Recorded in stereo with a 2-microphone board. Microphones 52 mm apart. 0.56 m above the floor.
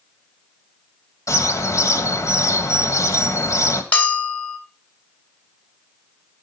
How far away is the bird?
About 1.9 m.